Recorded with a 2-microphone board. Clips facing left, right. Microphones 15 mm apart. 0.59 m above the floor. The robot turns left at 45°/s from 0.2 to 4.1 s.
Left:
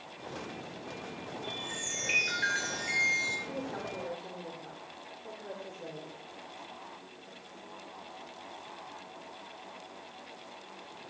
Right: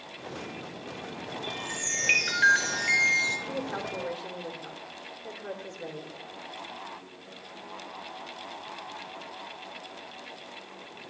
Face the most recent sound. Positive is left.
turn(degrees=-65)  # may be behind; listen again after turning